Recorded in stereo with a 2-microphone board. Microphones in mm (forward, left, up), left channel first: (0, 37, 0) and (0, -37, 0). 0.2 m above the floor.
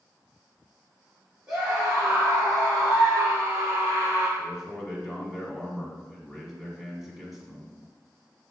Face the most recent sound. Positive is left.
turn(degrees=0)  # may be behind; listen again after turning